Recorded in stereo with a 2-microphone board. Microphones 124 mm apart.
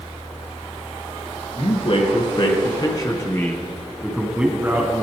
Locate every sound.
1.6 s a man speaking: 55° left (ahead or behind), 3 m; by 5.0 s 30° right (ahead or behind), 1.9 m